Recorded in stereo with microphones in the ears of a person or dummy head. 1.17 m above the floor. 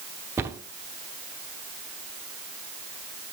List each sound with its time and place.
0.4 s a cupboard door: 15° right (ahead or behind), 0.9 m